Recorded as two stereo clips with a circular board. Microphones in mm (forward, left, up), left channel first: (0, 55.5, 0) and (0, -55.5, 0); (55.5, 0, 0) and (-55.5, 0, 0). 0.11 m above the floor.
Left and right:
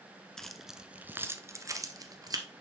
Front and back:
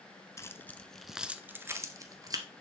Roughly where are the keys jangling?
Ahead.